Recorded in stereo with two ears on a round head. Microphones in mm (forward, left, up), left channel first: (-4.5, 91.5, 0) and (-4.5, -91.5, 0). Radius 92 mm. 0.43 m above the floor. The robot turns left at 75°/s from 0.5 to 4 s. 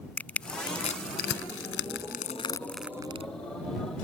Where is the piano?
No piano in this recording.